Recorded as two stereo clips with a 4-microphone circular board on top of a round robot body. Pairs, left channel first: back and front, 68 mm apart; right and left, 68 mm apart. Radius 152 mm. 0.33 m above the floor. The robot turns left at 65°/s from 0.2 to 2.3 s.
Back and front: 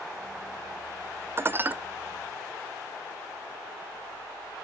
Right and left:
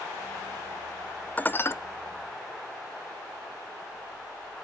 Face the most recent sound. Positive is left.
turn(degrees=-95)